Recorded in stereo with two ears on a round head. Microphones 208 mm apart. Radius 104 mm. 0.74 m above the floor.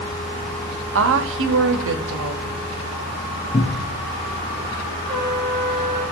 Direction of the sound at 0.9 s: 60° right (ahead or behind).